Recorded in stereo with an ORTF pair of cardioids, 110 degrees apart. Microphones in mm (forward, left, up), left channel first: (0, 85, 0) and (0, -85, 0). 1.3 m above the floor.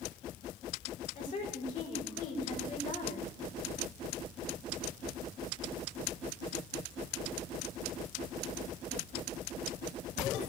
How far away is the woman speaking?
About 5 m.